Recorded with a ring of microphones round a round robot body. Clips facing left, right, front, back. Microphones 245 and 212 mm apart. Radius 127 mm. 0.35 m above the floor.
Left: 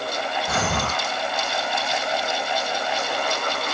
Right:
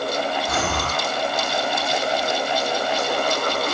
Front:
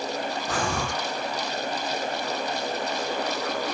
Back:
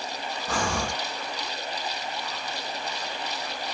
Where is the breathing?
90° left, 3 m.